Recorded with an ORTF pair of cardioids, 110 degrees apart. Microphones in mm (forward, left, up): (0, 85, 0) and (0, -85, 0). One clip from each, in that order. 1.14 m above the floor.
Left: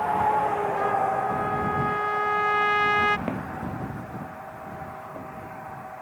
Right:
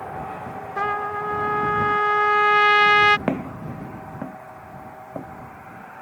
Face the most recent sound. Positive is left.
turn(degrees=-55)